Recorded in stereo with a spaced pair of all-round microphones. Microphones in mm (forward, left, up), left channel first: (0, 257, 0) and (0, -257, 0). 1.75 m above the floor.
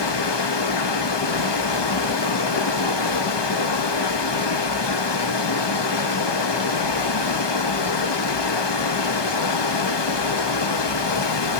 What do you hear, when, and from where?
0.0 s running water: 50° left (ahead or behind), 0.8 m